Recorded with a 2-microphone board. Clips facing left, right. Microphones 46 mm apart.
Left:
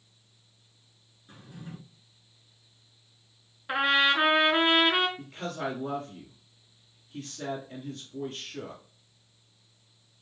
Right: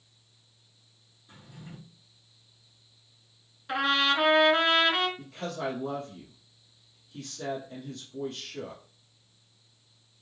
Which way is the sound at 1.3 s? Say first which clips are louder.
Left 3 dB; 35° left (ahead or behind).